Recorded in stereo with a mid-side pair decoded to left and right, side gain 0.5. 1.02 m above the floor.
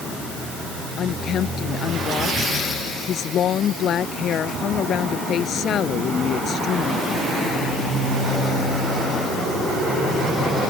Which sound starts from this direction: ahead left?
A woman speaking, at 1.0 s.